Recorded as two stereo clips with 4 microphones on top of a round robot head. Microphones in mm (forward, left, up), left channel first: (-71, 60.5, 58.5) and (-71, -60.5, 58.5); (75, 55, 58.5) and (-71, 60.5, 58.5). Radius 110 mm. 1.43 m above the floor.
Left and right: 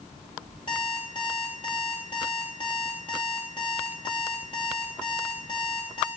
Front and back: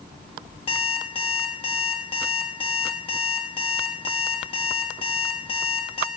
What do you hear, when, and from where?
0.7 s an alarm clock: 30° left, 1.0 m